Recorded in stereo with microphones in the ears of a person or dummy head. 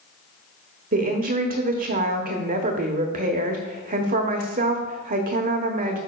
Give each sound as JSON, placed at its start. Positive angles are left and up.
{"t": 0.9, "sound": "a woman speaking", "side_deg": -40, "distance_m": 1.1}